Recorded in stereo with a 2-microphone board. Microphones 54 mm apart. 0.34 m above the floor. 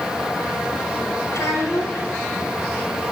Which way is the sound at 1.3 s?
70° left (ahead or behind).